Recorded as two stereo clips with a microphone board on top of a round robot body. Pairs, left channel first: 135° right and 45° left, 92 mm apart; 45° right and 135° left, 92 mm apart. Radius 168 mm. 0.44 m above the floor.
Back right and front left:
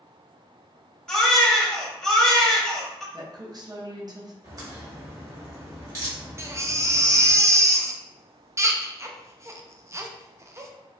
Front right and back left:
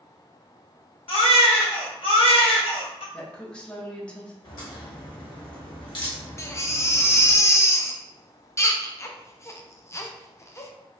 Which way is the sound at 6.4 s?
Straight ahead.